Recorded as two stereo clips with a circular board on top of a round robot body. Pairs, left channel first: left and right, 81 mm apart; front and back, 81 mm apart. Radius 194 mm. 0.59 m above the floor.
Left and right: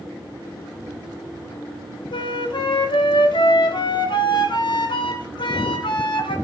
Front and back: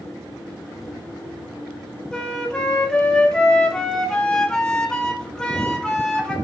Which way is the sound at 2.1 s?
80° left.